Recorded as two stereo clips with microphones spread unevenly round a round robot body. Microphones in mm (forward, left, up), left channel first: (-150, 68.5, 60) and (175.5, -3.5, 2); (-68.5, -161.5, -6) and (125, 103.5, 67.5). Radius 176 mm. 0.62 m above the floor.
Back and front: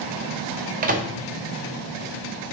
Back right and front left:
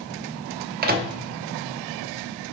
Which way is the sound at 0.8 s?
10° right.